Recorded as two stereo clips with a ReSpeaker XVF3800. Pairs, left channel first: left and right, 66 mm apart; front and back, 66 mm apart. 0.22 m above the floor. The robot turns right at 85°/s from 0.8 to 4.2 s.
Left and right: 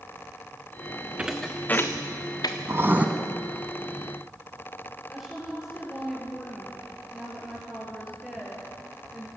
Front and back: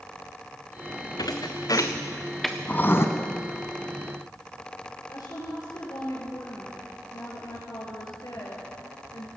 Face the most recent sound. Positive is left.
turn(degrees=-5)